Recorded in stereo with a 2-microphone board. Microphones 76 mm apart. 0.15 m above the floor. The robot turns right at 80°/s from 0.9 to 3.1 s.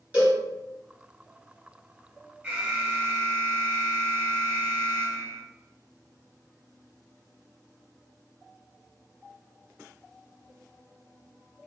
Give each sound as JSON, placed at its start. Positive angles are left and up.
{"t": 0.1, "sound": "a cowbell", "side_deg": -20, "distance_m": 1.8}
{"t": 2.4, "sound": "an alarm", "side_deg": -20, "distance_m": 1.1}